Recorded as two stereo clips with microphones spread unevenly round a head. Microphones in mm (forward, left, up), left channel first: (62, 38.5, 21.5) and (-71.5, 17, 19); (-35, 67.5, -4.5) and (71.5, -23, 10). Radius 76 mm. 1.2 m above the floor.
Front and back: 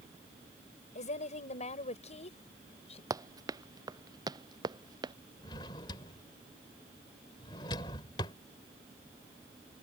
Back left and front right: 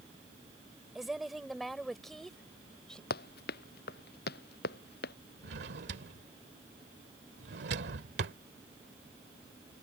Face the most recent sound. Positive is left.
turn(degrees=-55)